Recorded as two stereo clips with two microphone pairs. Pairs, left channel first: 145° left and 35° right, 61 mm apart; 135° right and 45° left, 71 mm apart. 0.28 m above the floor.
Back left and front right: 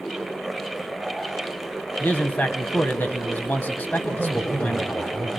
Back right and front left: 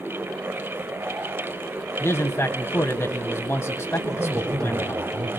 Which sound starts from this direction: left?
A man speaking, at 4.0 s.